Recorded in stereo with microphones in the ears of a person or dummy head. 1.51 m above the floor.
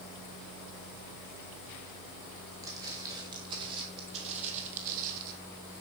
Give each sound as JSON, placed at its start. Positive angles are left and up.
{"t": 2.6, "sound": "footsteps", "side_deg": -20, "distance_m": 5.5}